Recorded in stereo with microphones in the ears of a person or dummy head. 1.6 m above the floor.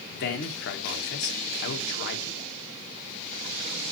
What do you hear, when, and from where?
0.1 s a man speaking: 60° left (ahead or behind), 1.2 m